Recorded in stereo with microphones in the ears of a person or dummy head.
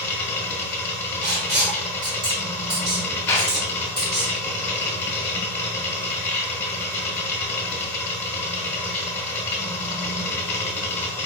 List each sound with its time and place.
0.0 s a machine running: 15° left (ahead or behind), 1.1 m
1.2 s writing: 35° right (ahead or behind), 1.5 m
3.3 s a clap: 10° left (ahead or behind), 1.9 m